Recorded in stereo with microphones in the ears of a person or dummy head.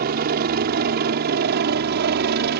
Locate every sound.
0.0 s a helicopter: 50° right (ahead or behind); by 2.6 s 60° right (ahead or behind)